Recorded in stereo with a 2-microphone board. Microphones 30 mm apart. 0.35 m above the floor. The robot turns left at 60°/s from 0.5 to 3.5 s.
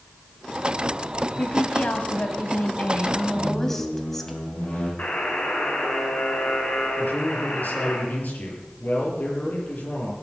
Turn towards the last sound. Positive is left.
turn(degrees=70)  # may be behind; listen again after turning